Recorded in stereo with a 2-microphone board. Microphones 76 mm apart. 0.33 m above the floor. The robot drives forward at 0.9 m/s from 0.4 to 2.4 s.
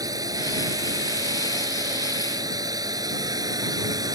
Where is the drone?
50° right (ahead or behind); by 4.2 s 55° right (ahead or behind).